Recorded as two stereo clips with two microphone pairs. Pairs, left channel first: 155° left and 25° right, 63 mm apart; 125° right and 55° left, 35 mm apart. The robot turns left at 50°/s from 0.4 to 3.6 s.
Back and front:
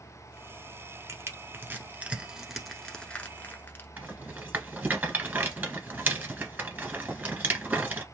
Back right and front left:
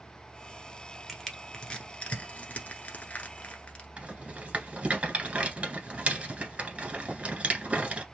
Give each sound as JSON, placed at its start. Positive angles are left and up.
{"t": 1.1, "sound": "crushing", "azimuth_deg": -35, "distance_m": 1.0}
{"t": 4.0, "sound": "a rattle", "azimuth_deg": 30, "distance_m": 1.3}